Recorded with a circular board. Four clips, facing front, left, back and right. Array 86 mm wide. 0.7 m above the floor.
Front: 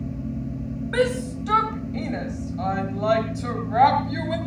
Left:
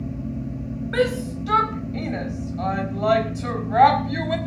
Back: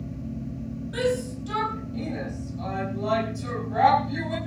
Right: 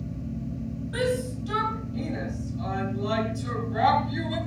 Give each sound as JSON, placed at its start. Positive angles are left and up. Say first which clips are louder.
{"t": 0.9, "sound": "a shout", "louder": "left 5 dB, front 3 dB", "azimuth_deg": 40, "distance_m": 4.0}